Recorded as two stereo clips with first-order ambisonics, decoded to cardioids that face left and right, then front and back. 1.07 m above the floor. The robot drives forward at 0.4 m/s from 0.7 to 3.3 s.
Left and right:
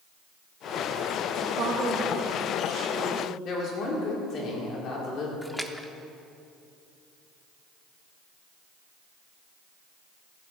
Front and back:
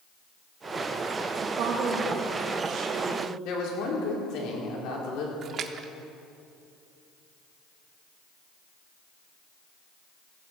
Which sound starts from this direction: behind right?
A woman speaking, at 1.4 s.